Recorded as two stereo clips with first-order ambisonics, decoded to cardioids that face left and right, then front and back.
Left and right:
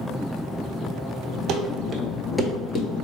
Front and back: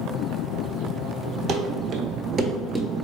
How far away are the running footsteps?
About 0.7 m.